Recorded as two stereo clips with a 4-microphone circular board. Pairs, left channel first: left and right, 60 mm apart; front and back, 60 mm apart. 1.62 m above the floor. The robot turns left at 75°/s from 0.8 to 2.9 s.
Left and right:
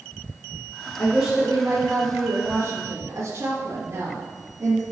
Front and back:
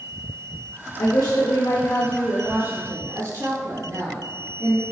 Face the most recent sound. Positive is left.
turn(degrees=-135)